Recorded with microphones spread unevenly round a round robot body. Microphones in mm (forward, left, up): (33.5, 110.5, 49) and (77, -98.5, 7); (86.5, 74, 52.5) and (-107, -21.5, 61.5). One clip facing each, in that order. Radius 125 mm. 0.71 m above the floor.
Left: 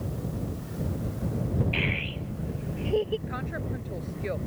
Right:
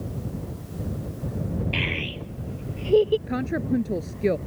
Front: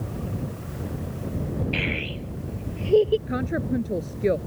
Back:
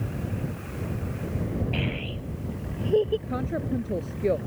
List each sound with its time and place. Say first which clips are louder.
1.7 s a child speaking: right 1 dB, front 1 dB; 45° right; by 3.2 s 40° right
3.3 s a woman speaking: right 10 dB, front 3 dB; 50° right